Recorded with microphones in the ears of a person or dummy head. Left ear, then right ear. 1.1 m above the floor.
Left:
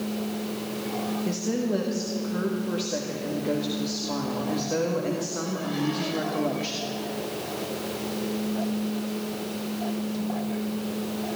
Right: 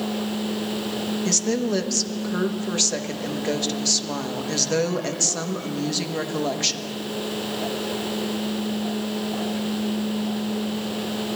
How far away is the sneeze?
No sneeze in this recording.